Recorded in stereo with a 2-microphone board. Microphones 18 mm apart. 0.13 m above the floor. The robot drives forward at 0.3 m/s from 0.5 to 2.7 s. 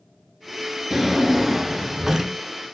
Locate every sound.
0.9 s a drawer: 20° right (ahead or behind), 0.7 m; by 2.4 s 30° right (ahead or behind), 0.5 m